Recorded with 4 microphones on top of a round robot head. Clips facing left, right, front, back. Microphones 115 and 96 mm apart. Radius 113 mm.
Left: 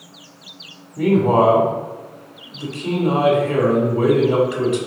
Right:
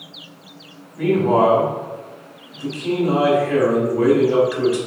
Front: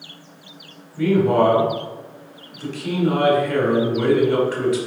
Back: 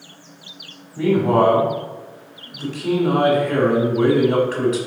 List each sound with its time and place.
1.0 s a man speaking: 150° left, 1.2 m